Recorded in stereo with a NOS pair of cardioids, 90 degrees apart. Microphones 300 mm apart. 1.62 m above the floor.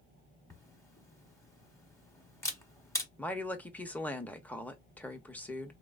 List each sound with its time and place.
0.5 s a camera shutter: 10° left, 1.0 m
3.2 s a woman speaking: 5° left, 0.8 m